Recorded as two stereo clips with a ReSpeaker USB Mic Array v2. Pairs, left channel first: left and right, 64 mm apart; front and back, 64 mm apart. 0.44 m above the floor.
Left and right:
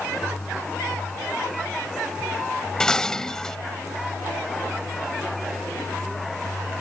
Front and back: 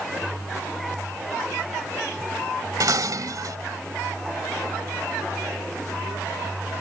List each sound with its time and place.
2.8 s dishes clattering: 170° left